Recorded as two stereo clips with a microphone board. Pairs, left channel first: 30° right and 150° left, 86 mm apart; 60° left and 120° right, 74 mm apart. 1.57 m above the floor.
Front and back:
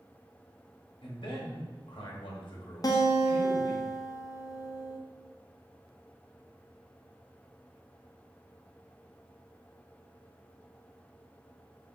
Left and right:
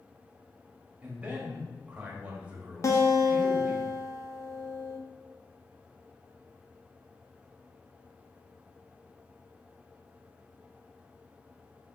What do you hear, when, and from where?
1.0 s a man speaking: 50° right, 1.1 m
2.8 s a guitar: 15° left, 0.6 m